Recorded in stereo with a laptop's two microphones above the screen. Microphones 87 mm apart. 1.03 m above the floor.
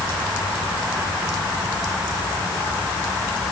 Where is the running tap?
I don't hear a running tap.